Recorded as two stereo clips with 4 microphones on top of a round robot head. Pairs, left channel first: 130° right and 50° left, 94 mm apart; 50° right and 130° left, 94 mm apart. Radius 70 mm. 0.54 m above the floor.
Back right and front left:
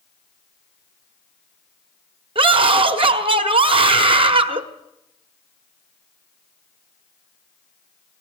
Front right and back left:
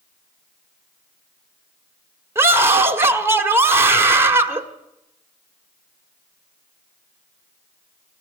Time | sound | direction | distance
2.4 | a scream | 65° left | 1.7 m